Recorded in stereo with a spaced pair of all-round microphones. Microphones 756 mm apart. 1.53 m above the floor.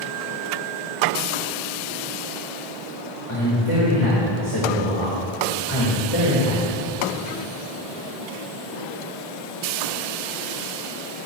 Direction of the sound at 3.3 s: 40° left (ahead or behind).